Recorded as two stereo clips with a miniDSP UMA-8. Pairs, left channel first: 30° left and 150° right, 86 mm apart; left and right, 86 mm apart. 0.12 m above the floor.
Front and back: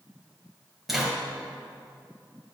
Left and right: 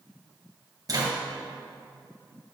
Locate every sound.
0.9 s a zipper: 65° right, 2 m